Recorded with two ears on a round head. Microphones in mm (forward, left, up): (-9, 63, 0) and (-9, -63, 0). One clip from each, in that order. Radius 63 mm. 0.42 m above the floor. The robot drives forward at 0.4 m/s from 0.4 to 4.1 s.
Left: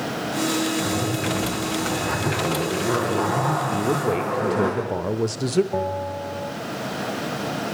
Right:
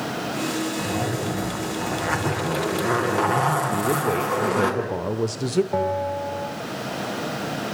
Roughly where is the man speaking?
Centre.